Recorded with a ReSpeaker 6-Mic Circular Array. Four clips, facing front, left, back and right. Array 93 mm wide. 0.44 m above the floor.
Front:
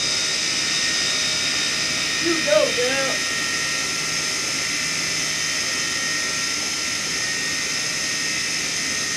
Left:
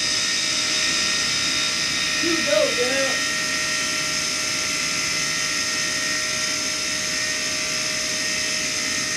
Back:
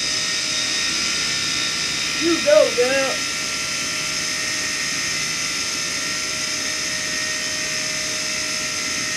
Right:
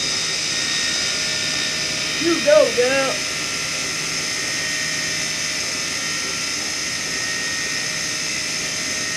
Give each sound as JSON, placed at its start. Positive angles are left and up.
{"t": 2.2, "sound": "a child speaking", "azimuth_deg": -115, "distance_m": 0.5}